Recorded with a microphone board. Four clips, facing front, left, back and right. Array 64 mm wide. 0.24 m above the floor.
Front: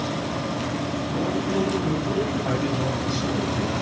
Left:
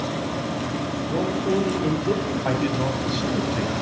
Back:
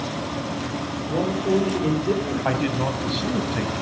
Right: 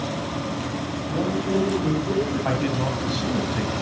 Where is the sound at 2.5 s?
Straight behind, 1.6 m.